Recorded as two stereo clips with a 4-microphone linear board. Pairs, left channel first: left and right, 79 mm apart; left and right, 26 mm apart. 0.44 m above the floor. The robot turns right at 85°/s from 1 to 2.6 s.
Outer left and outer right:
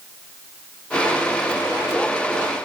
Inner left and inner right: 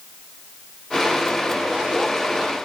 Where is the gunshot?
No gunshot in this recording.